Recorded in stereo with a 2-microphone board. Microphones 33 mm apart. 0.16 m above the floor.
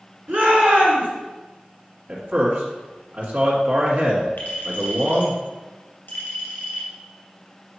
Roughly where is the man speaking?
Right.